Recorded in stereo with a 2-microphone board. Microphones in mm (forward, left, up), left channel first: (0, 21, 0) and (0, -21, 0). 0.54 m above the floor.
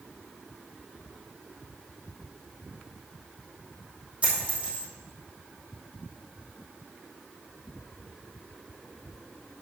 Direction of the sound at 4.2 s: 30° right (ahead or behind).